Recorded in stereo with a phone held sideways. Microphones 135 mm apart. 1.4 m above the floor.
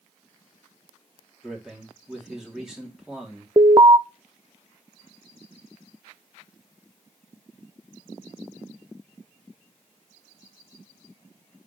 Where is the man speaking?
5° right (ahead or behind), 3 m.